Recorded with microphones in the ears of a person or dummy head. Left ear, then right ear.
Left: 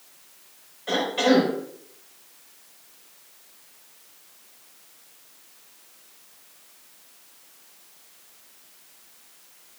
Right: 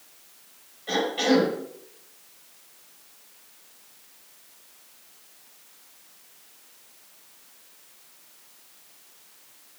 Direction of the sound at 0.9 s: 40° left (ahead or behind).